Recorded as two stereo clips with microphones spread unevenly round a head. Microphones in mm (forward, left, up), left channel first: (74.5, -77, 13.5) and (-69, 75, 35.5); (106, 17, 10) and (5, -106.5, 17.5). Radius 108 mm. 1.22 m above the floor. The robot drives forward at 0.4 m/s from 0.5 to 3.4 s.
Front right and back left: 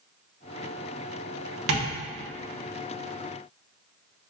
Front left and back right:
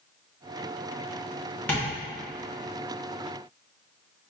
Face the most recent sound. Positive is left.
turn(degrees=150)